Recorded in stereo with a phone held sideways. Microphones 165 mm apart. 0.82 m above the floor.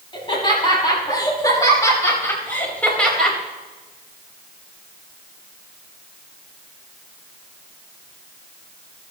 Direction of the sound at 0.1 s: 30° left (ahead or behind).